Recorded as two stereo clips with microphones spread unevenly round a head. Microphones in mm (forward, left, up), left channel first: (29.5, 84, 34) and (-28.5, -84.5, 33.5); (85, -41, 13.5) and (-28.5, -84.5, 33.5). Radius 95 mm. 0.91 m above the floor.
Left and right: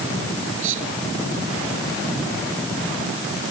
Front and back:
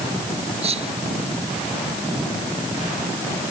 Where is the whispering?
125° right.